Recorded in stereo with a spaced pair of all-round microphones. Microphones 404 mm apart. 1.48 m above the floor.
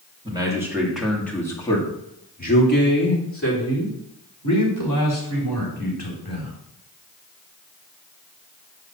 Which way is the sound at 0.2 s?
10° right (ahead or behind).